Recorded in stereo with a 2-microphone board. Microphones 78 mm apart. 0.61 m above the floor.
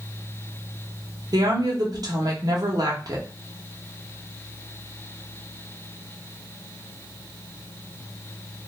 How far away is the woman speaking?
About 0.8 m.